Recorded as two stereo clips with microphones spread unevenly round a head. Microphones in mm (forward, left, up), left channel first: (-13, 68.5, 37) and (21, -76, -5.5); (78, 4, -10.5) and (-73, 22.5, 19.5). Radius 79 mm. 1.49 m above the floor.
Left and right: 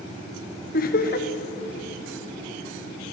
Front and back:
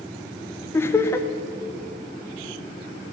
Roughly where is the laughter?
Ahead left.